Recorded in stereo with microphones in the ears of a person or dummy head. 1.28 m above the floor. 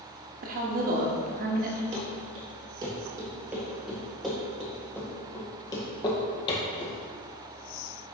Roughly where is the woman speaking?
Right.